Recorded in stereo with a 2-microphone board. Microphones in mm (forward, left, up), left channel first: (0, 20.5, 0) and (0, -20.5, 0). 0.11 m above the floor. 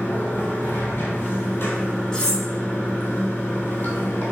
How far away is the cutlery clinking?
About 0.7 m.